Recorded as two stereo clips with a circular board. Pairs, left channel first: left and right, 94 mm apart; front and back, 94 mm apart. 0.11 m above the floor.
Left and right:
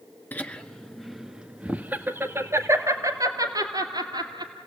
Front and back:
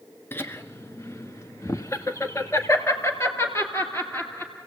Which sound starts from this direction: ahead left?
Laughter, at 0.3 s.